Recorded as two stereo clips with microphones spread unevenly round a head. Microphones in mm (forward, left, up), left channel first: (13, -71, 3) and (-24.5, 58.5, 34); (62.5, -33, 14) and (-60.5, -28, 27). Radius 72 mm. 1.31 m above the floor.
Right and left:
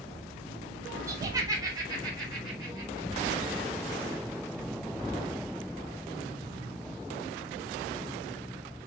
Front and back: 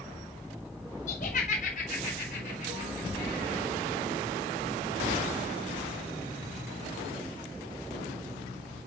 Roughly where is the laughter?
Ahead left.